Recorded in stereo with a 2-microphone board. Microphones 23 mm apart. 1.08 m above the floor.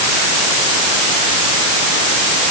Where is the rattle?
No rattle in this recording.